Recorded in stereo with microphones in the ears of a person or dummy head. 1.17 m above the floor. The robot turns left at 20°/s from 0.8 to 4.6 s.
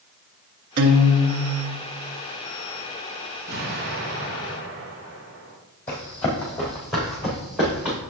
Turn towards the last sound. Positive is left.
turn(degrees=-5)  # may be behind; listen again after turning